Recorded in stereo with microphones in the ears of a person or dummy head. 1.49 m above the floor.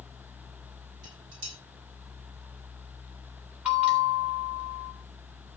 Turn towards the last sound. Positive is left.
turn(degrees=-10)  # may be behind; listen again after turning